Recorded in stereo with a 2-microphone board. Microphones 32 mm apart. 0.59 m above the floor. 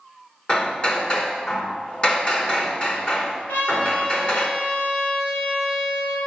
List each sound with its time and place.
0.5 s hammering: 35° left (ahead or behind), 1.4 m
3.5 s a trumpet: 80° left, 4 m